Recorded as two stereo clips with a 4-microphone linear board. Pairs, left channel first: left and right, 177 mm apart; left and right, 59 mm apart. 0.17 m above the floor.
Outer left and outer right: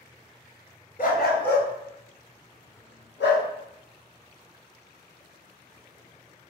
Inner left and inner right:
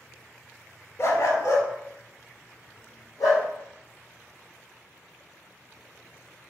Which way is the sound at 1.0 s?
55° left (ahead or behind).